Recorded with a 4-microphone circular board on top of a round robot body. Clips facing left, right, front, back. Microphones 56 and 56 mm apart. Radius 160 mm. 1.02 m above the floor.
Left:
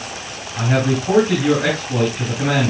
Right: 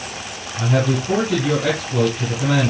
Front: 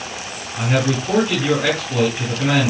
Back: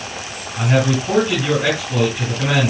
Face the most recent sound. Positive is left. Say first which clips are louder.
# left 1 dB, back 2 dB
turn(degrees=100)